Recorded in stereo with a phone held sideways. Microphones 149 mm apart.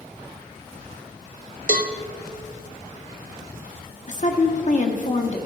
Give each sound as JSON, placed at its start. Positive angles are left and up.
{"t": 1.7, "sound": "a cowbell", "side_deg": -65, "distance_m": 0.7}
{"t": 4.1, "sound": "a woman speaking", "side_deg": 55, "distance_m": 1.3}